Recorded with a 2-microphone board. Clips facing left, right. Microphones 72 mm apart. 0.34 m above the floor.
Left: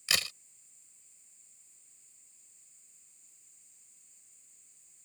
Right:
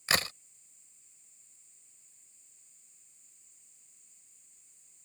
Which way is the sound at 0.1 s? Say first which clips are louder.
Right 5 dB; 40° right (ahead or behind).